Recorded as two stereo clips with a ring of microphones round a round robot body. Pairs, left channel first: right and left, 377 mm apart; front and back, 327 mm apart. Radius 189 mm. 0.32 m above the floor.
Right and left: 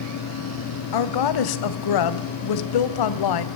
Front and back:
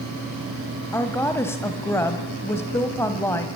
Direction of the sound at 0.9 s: 85° right.